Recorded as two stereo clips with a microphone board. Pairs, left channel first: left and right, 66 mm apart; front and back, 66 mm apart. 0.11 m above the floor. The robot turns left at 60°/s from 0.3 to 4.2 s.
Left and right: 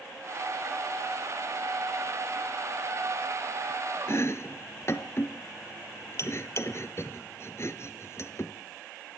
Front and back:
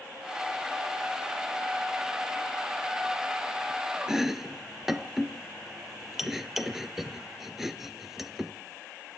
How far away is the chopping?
About 1.1 m.